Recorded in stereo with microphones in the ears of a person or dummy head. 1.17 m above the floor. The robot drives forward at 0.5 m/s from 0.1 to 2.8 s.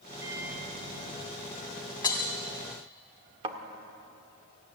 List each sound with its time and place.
0.2 s a microwave: 15° right (ahead or behind), 2.5 m; by 1.9 s 10° right (ahead or behind), 3 m
2.0 s breaking glass: 25° left (ahead or behind), 1.6 m; by 2.3 s 20° left (ahead or behind), 1.8 m
3.4 s a thud: 30° right (ahead or behind), 1.7 m